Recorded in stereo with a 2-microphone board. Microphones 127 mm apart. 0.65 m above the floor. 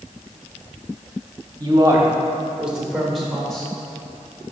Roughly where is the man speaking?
Right.